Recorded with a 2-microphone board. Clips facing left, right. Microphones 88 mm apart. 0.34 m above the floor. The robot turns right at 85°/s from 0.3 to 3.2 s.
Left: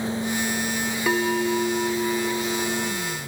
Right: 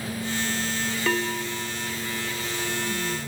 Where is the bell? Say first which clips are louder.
Left 6 dB; 10° left, 1.3 m; by 3.2 s 165° right, 1.3 m.